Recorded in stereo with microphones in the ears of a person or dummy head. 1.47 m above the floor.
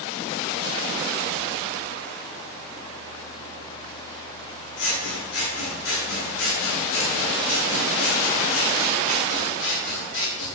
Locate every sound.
4.8 s scissors: 70° left (ahead or behind), 8.5 m